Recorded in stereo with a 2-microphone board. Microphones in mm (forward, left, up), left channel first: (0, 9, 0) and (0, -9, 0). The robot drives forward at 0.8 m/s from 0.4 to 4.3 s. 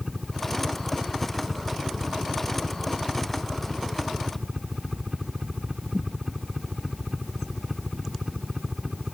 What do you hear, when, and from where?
0.0 s a helicopter: 15° right (ahead or behind); by 9.2 s 20° right (ahead or behind)